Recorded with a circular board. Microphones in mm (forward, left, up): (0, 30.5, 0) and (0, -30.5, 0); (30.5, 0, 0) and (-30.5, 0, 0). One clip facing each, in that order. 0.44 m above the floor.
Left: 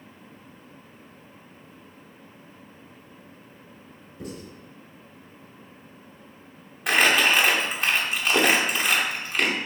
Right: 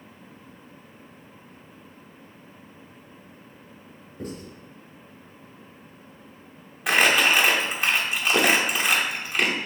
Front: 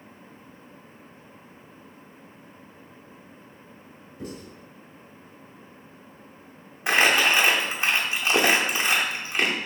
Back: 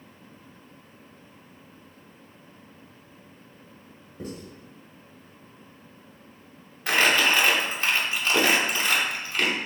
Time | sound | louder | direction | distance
4.2 | writing | right 2 dB, even | 135° right | 1.8 m
6.9 | crumpling | even, front 1 dB | 5° right | 0.7 m